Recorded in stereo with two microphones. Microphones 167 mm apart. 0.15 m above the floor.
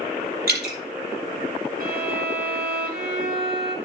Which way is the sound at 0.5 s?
70° right (ahead or behind).